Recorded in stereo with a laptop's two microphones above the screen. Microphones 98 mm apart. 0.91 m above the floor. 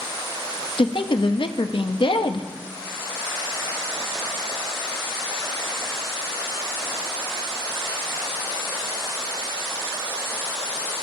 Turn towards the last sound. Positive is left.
turn(degrees=60)  # may be behind; listen again after turning